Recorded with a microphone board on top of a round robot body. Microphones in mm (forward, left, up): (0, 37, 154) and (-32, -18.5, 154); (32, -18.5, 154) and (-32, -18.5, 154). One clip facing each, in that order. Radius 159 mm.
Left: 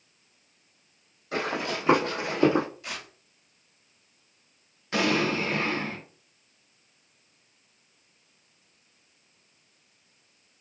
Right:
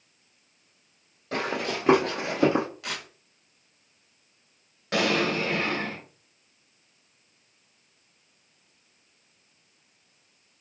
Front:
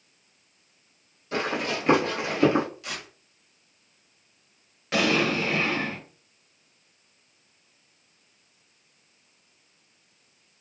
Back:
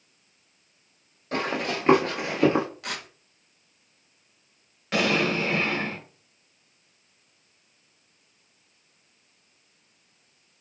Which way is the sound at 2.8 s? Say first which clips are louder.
Right 3 dB, back 2 dB; 145° right.